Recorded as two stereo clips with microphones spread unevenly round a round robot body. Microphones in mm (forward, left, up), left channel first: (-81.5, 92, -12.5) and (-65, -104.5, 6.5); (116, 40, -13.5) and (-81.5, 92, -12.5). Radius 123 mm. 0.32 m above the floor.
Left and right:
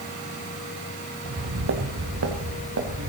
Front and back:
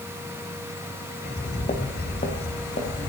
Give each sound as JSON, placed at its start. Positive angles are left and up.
{"t": 1.2, "sound": "footsteps", "azimuth_deg": -85, "distance_m": 2.0}